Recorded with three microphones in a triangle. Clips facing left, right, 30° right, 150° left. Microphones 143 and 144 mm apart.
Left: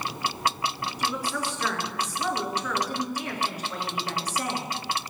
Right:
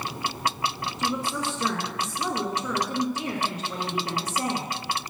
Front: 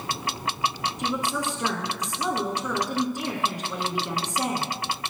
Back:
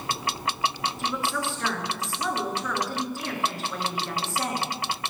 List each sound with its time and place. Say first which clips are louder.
1.0 s a woman speaking: right 2 dB, front 2 dB; 70° right, 1.5 m